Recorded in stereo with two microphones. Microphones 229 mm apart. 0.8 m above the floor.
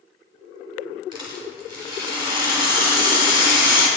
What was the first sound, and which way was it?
A rattle, 20° right (ahead or behind).